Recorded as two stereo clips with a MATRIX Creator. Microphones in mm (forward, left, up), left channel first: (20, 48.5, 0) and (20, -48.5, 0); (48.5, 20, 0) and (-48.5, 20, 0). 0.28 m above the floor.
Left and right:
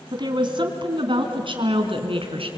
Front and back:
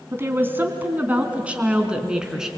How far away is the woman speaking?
About 2.5 m.